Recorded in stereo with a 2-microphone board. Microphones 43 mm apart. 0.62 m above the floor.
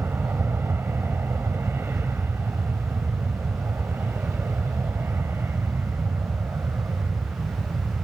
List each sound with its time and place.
0.0 s an aircraft: 65° right (ahead or behind)